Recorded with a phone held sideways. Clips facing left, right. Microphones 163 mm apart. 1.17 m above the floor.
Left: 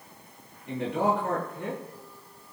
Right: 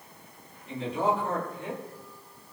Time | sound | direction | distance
0.7 | a man speaking | 65° left (ahead or behind) | 10 m